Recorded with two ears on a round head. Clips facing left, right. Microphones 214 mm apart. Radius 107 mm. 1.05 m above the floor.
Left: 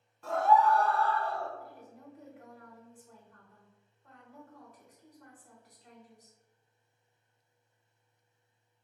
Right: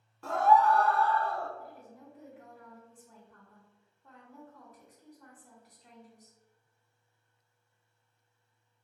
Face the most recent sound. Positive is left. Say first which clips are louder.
# even
turn(degrees=-85)